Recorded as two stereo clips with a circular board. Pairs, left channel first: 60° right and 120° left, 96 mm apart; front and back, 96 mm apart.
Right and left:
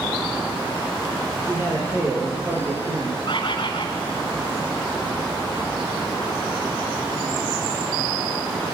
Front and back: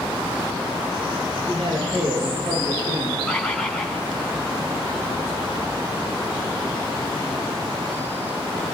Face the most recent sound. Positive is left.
turn(degrees=-80)